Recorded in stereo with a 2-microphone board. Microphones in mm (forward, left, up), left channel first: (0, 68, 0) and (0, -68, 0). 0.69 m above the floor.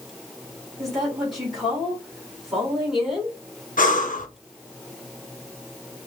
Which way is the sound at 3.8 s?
80° left.